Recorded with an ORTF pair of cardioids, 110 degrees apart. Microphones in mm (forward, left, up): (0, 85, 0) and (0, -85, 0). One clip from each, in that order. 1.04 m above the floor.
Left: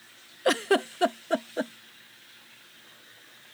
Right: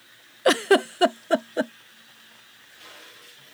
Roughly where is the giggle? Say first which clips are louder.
Right 5 dB; ahead right.